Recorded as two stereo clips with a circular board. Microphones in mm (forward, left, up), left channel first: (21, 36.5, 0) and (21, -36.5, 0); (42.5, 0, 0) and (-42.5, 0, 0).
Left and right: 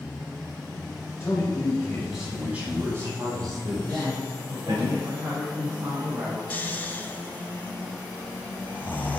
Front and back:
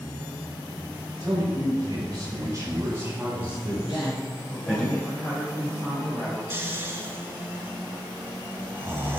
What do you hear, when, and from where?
1.2 s a man speaking: 150° left, 3 m; by 4.9 s 85° right, 4 m
3.9 s a woman speaking: 50° right, 2.5 m
6.5 s snoring: 140° left, 0.7 m